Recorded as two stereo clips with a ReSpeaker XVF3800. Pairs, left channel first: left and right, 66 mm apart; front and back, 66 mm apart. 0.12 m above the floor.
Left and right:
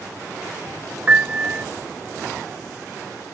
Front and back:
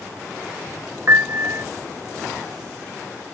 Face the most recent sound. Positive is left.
turn(degrees=-150)